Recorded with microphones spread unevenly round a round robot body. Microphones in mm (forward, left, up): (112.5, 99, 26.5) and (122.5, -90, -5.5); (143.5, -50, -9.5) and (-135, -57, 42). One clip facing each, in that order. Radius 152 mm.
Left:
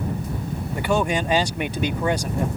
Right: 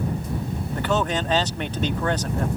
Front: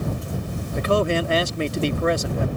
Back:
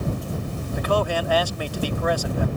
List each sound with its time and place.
0.7 s a man speaking: 10° left